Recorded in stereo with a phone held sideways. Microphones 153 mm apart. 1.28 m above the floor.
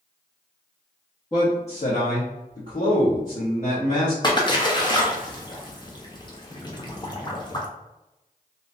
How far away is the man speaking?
About 0.7 m.